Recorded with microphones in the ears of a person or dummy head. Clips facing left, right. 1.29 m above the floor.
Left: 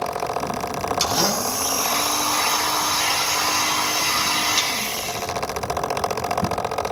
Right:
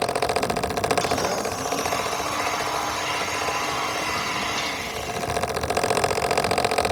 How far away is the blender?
About 6 m.